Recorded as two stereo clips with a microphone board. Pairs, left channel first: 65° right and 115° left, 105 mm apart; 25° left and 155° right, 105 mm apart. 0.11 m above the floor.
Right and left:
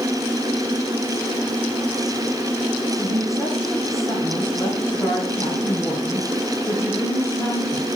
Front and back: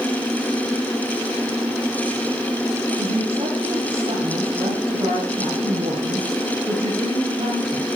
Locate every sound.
3.0 s a woman speaking: 130° right, 6 m